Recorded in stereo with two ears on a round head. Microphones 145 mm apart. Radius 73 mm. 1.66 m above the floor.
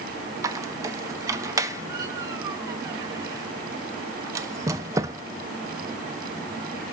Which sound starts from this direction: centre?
A squeak, at 0.4 s.